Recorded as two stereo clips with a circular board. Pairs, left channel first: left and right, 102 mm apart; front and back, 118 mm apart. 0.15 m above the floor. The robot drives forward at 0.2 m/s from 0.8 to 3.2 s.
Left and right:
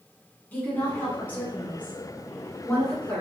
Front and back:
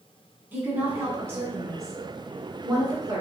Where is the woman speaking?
135° left, 1.1 m; by 3.2 s 155° left, 1.3 m.